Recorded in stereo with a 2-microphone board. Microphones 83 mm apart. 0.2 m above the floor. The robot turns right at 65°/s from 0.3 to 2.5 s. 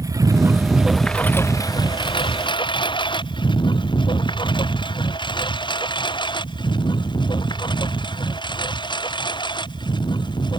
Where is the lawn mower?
45° right (ahead or behind); by 10.6 s 70° left (ahead or behind).